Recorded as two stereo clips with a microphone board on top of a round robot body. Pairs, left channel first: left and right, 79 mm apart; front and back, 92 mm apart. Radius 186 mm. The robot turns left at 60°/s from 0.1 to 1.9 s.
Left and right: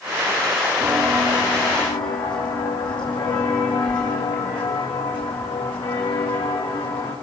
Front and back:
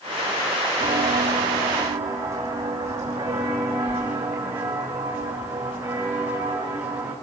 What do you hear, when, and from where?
0.8 s footsteps: 165° right, 2.5 m; by 7.1 s 105° left, 6 m